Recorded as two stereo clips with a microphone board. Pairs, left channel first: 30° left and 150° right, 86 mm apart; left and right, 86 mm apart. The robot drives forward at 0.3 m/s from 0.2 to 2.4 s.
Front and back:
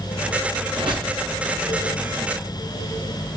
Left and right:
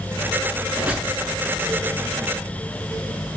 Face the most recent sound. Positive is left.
turn(degrees=-170)